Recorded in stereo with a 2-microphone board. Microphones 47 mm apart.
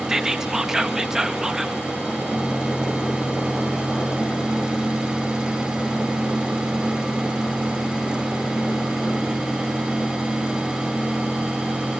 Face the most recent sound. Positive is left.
turn(degrees=-10)  # may be behind; listen again after turning